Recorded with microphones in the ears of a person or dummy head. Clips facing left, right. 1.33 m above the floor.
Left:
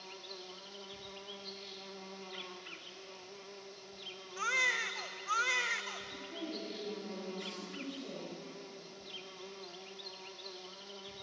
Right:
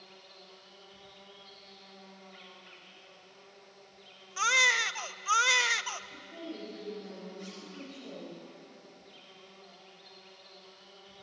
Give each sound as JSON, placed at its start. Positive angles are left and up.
{"t": 0.0, "sound": "an insect", "side_deg": 75, "distance_m": 1.8}
{"t": 4.4, "sound": "a baby crying", "side_deg": -65, "distance_m": 0.6}
{"t": 6.1, "sound": "a woman speaking", "side_deg": 15, "distance_m": 9.5}